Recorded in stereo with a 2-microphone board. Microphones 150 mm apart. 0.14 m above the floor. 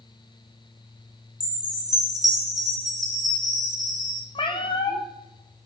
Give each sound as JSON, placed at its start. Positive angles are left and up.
{"t": 1.4, "sound": "a chime", "side_deg": -25, "distance_m": 2.5}
{"t": 4.3, "sound": "a cat meowing", "side_deg": 35, "distance_m": 0.8}